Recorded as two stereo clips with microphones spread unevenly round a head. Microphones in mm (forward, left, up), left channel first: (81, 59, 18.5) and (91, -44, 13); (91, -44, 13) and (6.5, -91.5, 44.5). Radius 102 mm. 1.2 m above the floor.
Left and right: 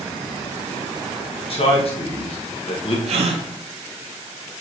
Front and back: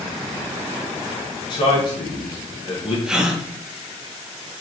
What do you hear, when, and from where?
1.5 s a man speaking: 65° left, 1.4 m
3.1 s a gasp: 80° right, 0.8 m